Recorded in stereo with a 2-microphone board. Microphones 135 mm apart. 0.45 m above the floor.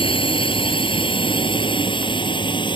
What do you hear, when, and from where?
0.0 s a drone: 40° left (ahead or behind); by 2.8 s 35° left (ahead or behind)